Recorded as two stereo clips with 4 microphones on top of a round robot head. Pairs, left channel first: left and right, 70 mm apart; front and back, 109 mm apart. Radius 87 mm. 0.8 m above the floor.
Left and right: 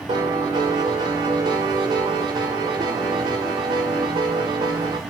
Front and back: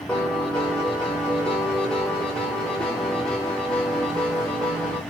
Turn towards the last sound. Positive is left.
turn(degrees=-85)